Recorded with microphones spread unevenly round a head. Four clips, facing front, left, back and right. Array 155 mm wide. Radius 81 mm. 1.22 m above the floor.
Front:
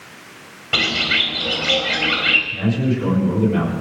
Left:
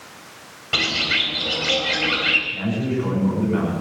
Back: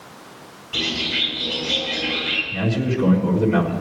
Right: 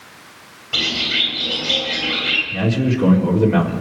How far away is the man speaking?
About 4 m.